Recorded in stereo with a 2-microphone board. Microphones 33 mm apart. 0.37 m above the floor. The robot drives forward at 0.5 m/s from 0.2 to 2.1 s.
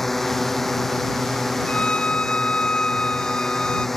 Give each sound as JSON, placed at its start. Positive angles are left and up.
{"t": 0.0, "sound": "a drone", "side_deg": 5}
{"t": 1.7, "sound": "a violin", "side_deg": 35}